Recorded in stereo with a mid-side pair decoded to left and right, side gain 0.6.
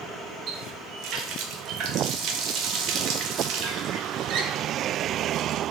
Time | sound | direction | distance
0.5 | a running tap | 65° right | 1.2 m